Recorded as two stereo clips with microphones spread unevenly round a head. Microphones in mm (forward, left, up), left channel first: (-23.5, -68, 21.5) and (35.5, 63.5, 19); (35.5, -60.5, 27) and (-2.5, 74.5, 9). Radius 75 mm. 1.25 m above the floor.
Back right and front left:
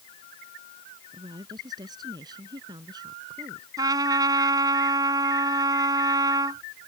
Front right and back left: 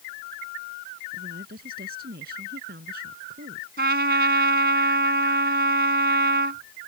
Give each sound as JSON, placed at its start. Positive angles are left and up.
{"t": 1.1, "sound": "a woman speaking", "azimuth_deg": 130}
{"t": 3.8, "sound": "a trumpet", "azimuth_deg": 130}